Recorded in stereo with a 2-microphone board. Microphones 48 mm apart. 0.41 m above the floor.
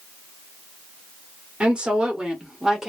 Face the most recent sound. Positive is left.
turn(degrees=-10)  # may be behind; listen again after turning